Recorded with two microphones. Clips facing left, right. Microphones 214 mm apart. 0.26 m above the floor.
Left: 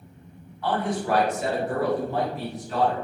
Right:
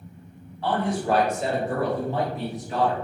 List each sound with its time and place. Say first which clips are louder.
0.6 s a man speaking: right 1 dB; 25° right (ahead or behind), 1.1 m; by 2.9 s 15° right (ahead or behind), 1.6 m